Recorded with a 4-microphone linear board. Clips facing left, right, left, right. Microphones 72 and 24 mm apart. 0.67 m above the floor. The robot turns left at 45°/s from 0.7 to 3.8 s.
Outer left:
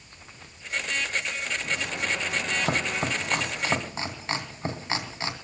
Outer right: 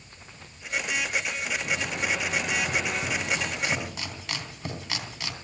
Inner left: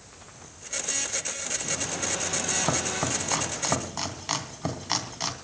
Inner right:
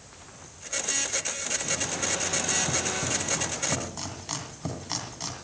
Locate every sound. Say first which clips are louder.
2.6 s chopping: outer left 1 dB, inner left 1 dB; 85° left, 3 m; by 5.3 s 30° left (ahead or behind), 3 m